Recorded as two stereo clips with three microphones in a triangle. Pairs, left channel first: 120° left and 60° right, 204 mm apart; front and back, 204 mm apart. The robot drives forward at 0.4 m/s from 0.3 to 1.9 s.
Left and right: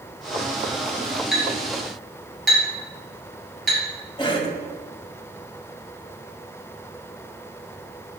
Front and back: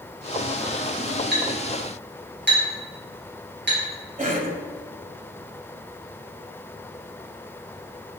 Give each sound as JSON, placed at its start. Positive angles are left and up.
{"t": 1.3, "sound": "a clink", "azimuth_deg": -150, "distance_m": 3.0}
{"t": 4.2, "sound": "a cough", "azimuth_deg": 170, "distance_m": 1.4}